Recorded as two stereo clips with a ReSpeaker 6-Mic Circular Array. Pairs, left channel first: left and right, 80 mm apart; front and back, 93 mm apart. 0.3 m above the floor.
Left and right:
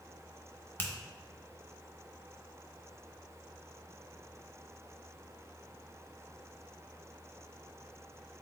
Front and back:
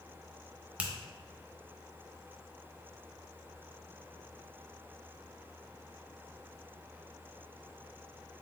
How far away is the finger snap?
About 0.8 m.